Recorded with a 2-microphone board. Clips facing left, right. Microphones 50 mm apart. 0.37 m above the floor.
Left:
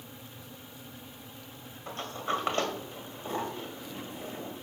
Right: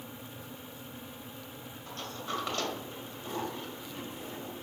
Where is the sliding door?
40° left (ahead or behind), 2 m.